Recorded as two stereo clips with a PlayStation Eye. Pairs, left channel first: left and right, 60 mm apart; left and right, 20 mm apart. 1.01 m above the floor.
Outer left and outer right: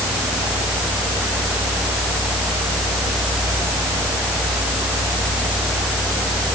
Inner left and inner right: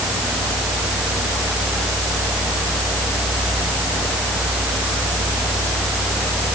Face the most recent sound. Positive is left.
No sound to turn to.